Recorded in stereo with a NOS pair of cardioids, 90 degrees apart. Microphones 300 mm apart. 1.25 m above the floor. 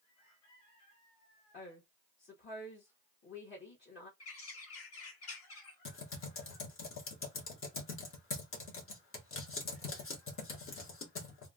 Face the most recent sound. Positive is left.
turn(degrees=45)